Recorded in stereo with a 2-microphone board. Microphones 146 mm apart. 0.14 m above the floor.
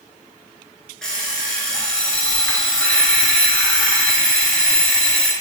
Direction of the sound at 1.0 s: 5° left (ahead or behind).